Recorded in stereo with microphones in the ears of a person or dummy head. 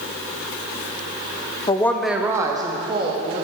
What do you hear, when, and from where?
1.7 s a woman speaking: 20° left (ahead or behind), 0.5 m; by 3.4 s 30° right (ahead or behind), 1.5 m